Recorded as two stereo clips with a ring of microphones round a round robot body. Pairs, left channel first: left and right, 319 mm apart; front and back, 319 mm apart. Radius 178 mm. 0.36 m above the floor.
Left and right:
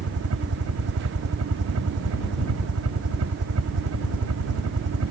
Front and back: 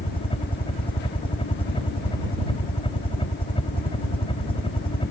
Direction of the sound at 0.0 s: 70° right.